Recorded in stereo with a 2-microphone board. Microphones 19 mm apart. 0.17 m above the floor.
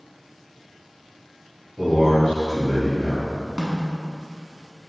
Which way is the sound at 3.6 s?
35° right (ahead or behind).